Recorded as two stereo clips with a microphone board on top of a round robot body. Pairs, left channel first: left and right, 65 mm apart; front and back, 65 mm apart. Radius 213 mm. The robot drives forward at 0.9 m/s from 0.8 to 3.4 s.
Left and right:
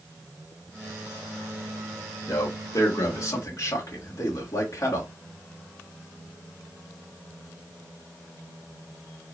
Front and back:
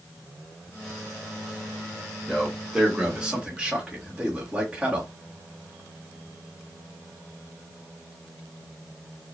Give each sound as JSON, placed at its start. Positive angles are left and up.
{"t": 2.3, "sound": "a man speaking", "azimuth_deg": 85, "distance_m": 2.5}